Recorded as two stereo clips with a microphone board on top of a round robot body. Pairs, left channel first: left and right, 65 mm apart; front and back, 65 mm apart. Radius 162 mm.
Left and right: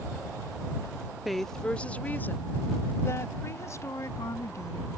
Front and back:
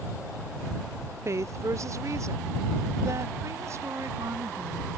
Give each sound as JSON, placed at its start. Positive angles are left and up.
{"t": 1.2, "sound": "a woman speaking", "azimuth_deg": 180}